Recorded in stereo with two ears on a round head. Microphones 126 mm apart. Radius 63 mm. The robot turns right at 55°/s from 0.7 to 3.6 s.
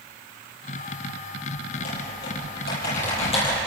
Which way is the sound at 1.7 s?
45° left (ahead or behind).